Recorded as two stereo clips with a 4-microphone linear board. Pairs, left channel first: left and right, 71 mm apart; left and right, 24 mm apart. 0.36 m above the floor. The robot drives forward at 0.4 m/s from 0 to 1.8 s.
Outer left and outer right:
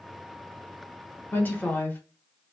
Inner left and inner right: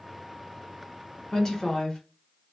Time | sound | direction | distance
1.3 | a woman speaking | 25° left (ahead or behind) | 0.9 m